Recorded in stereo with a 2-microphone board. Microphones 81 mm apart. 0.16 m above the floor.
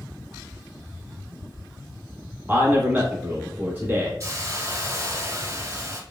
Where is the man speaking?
25° right (ahead or behind), 1.3 m.